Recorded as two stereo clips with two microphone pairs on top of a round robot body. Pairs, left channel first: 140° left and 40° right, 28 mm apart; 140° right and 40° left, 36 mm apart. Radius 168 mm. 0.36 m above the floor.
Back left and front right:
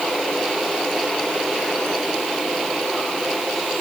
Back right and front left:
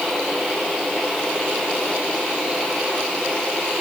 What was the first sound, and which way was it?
Only background noise.